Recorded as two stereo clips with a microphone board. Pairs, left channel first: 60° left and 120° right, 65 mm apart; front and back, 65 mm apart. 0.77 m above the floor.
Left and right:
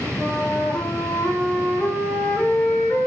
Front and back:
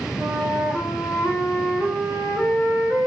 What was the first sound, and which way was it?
A flute, 125° left.